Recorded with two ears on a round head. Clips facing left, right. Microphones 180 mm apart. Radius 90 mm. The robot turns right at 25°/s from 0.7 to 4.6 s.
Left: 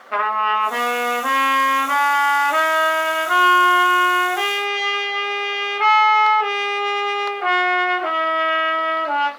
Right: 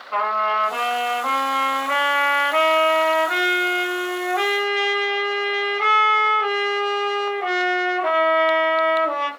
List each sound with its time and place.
0.1 s a trumpet: 80° left, 1.3 m; by 9.3 s 175° left, 1.3 m